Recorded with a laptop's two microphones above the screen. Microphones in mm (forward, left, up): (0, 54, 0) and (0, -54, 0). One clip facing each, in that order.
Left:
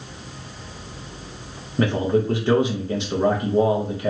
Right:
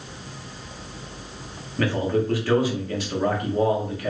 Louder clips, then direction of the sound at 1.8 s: Left 3 dB; 20° left (ahead or behind).